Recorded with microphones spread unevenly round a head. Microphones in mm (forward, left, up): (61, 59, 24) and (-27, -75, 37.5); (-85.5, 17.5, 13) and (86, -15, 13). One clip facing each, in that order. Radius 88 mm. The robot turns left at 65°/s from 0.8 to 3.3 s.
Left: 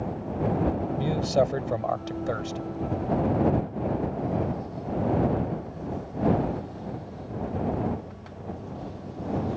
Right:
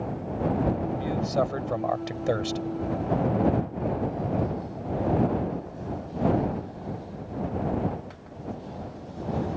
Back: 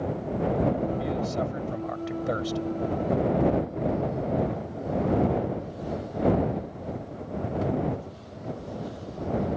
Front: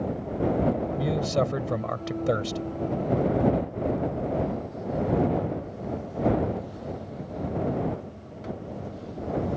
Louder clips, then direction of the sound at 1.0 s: Left 2 dB, front 3 dB; 25° left.